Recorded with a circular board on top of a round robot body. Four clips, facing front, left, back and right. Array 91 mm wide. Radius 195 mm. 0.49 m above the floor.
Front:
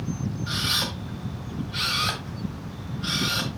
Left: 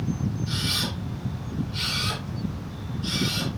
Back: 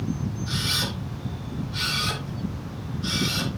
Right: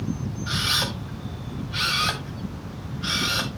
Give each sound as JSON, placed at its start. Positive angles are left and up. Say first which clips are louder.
{"t": 0.5, "sound": "a camera shutter", "louder": "right 2 dB, even", "azimuth_deg": -65, "distance_m": 2.0}